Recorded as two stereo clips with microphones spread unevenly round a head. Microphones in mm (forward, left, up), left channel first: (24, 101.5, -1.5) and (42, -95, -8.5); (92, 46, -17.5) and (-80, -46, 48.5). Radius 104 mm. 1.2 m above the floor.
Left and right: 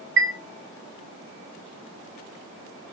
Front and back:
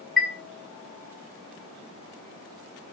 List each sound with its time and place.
0.2 s a chime: 65° right, 1.2 m